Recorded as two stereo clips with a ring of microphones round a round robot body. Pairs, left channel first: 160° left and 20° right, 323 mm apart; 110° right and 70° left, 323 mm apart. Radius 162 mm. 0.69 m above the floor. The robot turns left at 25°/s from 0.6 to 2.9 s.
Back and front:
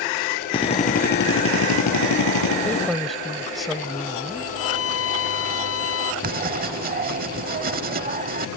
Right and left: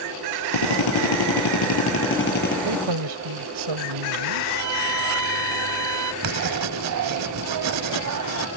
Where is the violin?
105° left.